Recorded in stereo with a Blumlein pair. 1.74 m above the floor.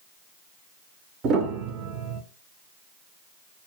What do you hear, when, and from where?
1.2 s a piano: 30° right, 0.7 m